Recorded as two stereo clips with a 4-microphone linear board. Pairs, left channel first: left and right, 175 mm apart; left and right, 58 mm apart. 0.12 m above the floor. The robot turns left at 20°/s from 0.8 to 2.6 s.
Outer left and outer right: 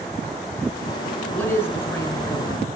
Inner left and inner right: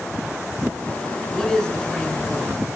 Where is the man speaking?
10° left (ahead or behind), 1.2 m; by 2.7 s 20° left (ahead or behind), 1.2 m.